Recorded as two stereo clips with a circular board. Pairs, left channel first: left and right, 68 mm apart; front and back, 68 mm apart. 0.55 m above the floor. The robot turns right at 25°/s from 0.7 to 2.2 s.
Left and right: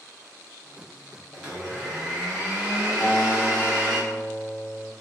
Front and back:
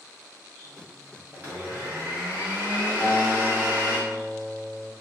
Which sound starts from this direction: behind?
A blender, at 1.3 s.